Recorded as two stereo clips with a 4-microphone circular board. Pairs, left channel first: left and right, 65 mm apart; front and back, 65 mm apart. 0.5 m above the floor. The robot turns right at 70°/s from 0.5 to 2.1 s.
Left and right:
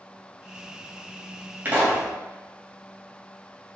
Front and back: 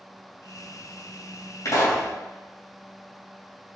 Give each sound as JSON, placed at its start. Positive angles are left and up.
{"t": 1.6, "sound": "a pop", "azimuth_deg": -30, "distance_m": 3.0}